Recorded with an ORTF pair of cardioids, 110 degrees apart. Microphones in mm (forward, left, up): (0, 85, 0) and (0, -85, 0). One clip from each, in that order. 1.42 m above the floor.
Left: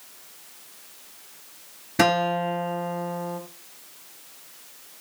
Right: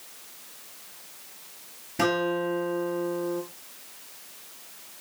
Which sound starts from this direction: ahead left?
A guitar, at 2.0 s.